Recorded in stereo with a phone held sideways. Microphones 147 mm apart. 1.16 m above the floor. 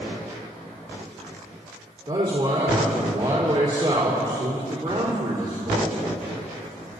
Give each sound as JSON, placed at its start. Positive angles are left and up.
{"t": 2.1, "sound": "a man speaking", "side_deg": -50, "distance_m": 4.0}